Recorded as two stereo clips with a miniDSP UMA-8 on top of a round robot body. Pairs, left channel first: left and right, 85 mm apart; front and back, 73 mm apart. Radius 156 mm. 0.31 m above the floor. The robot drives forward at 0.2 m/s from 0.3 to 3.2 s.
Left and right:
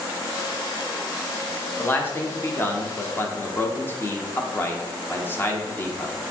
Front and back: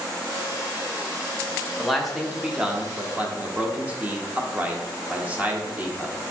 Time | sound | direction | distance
1.8 | a man speaking | 85° left | 0.9 m